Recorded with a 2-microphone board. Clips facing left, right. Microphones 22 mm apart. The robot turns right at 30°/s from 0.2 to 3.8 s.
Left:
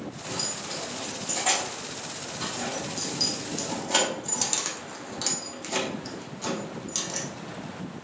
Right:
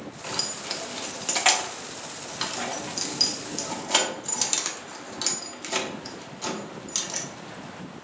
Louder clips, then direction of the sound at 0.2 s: Right 3 dB; 55° right (ahead or behind).